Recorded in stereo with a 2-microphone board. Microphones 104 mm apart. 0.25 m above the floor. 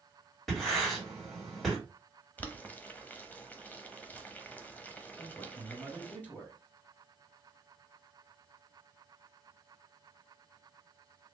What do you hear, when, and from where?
0.5 s writing: centre (ahead or behind), 2.5 m
2.4 s boiling: 15° left (ahead or behind), 0.6 m
5.2 s a man speaking: 15° left (ahead or behind), 1.5 m